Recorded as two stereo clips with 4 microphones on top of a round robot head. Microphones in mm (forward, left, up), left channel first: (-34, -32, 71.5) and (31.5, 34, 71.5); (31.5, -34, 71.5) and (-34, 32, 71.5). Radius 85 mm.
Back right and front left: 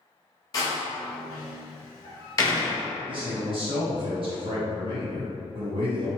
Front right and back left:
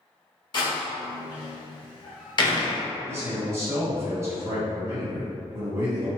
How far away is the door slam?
About 0.7 m.